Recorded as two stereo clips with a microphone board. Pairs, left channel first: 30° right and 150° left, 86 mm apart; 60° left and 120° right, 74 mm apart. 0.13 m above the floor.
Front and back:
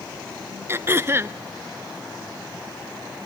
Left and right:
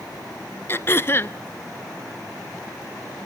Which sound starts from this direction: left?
Throat clearing, at 0.7 s.